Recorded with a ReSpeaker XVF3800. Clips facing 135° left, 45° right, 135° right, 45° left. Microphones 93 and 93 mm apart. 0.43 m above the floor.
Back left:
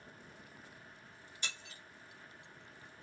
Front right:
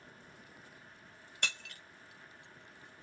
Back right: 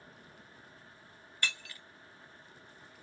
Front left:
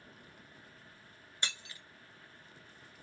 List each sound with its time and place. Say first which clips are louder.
1.4 s breaking glass: front right 6 dB, back right 3 dB; 25° right, 1.4 m